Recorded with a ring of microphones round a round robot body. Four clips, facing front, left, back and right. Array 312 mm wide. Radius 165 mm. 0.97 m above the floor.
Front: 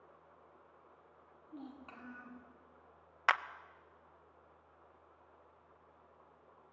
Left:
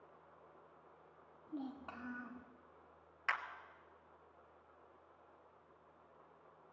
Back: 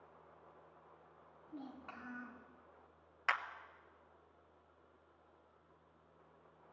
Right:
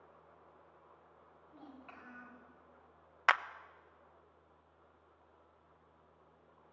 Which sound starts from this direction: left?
A child speaking, at 1.5 s.